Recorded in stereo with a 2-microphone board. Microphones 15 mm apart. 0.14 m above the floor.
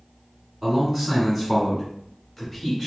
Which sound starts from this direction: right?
A man speaking, at 0.6 s.